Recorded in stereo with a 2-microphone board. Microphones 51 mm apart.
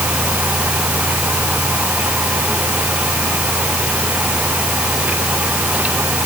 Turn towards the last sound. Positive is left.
No sound to turn to.